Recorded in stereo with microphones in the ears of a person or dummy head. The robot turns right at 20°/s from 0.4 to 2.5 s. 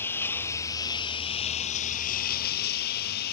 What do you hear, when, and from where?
0.0 s a lawn mower: 15° left; by 3.3 s 55° left